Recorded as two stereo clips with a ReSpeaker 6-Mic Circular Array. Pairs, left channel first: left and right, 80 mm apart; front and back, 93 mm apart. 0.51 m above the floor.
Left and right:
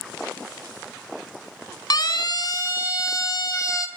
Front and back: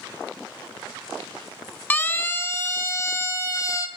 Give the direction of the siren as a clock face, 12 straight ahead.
10 o'clock.